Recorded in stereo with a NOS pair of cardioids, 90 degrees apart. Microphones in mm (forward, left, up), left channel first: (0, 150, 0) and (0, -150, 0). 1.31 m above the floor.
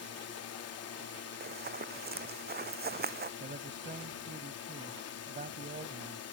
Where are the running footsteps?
35° right.